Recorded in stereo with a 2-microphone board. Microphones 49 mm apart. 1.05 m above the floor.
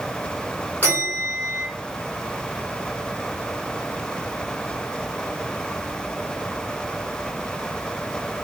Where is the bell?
30° left (ahead or behind), 1.8 m.